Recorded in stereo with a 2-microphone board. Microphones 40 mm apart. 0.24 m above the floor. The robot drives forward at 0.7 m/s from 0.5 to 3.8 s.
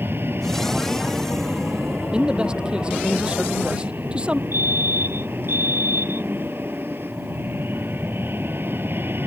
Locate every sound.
0.0 s an aircraft: 65° right (ahead or behind); by 9.3 s 60° right (ahead or behind)
2.1 s a man speaking: 25° right (ahead or behind)
4.5 s a fire alarm: 65° right (ahead or behind)